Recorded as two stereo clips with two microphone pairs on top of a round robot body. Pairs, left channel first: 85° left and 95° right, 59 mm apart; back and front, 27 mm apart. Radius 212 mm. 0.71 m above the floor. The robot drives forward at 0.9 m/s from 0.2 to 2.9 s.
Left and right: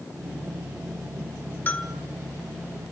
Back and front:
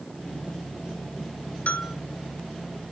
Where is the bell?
145° left, 1.8 m; by 1.9 s 150° left, 2.0 m.